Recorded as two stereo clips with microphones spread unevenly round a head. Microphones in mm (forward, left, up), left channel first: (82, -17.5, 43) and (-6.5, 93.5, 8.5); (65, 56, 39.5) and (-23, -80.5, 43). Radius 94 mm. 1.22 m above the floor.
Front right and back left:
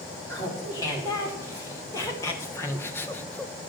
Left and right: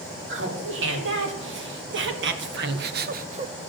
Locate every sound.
0.3 s laughter: 130° right, 4 m; by 3.5 s 160° right, 0.6 m